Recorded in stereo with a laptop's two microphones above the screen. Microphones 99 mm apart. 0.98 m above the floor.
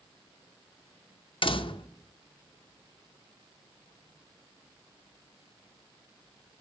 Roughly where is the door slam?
Left.